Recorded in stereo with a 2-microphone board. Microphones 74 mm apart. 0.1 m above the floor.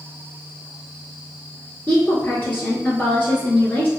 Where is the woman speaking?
25° left (ahead or behind), 1.2 m.